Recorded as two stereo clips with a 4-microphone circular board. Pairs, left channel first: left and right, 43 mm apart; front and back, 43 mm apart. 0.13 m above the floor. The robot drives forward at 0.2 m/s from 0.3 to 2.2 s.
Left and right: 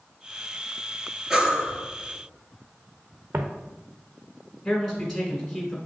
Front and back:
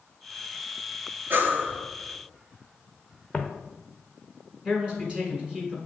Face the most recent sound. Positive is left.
turn(degrees=-175)